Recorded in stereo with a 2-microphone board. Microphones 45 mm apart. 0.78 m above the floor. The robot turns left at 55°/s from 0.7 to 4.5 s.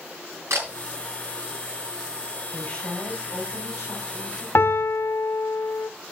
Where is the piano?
65° left (ahead or behind), 0.9 m.